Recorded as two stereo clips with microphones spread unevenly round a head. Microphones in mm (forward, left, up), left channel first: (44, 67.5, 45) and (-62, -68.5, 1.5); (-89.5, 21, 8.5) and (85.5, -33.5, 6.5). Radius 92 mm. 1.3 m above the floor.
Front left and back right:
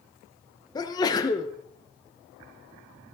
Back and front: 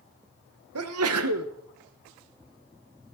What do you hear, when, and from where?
0.8 s a sneeze: 20° right, 1.0 m